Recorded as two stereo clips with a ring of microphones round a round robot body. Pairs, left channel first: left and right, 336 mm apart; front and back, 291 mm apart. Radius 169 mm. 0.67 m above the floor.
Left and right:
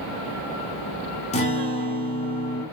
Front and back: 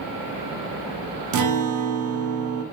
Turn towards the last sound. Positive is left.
turn(degrees=160)